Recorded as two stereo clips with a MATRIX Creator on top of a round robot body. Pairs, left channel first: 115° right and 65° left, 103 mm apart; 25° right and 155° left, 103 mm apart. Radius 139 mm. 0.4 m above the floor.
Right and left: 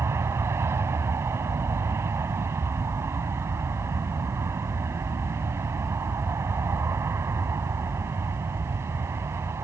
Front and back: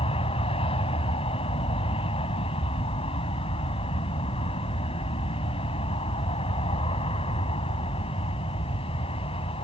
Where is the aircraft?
5° left.